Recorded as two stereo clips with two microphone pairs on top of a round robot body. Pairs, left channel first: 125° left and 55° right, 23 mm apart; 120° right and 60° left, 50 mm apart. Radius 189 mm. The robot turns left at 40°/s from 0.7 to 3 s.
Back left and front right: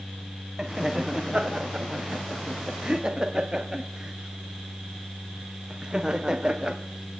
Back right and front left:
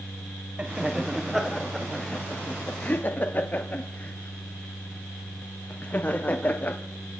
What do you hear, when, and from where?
0.6 s laughter: 5° right, 1.2 m; by 6.8 s 95° right, 1.2 m